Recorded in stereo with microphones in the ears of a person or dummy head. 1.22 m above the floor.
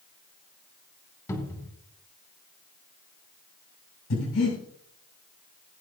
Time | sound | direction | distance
1.3 | a cupboard door | 20° left (ahead or behind) | 3 m
4.1 | breathing | 75° left (ahead or behind) | 7 m